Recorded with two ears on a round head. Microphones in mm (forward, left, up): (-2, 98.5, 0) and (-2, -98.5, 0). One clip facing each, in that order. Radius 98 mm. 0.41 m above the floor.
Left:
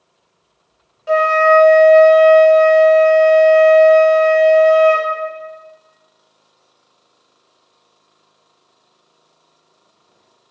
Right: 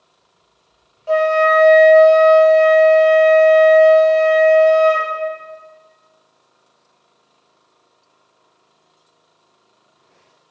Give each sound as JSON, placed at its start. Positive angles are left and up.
{"t": 1.1, "sound": "a flute", "side_deg": 20, "distance_m": 0.7}